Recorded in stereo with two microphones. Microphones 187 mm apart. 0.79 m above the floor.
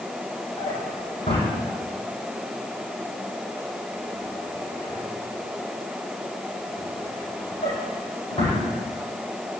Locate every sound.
0.6 s a drawer: 30° left (ahead or behind), 10 m